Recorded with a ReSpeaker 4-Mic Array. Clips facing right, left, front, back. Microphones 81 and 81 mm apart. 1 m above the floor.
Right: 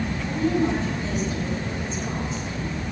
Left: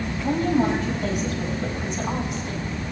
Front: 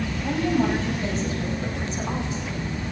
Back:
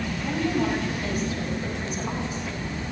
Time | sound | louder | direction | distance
0.2 | a woman speaking | left 2 dB, front 3 dB | 60° left | 6 m